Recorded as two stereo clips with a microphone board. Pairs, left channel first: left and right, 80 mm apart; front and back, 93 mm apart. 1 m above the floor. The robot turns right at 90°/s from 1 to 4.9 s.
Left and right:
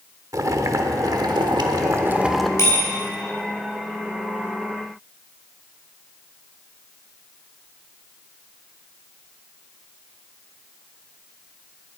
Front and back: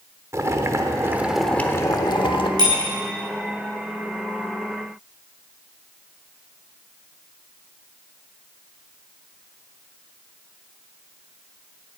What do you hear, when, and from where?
0.3 s boiling: 125° right, 1.0 m; by 2.5 s 5° left, 1.0 m
2.6 s a bicycle bell: 145° left, 4.5 m; by 2.8 s 160° left, 4.5 m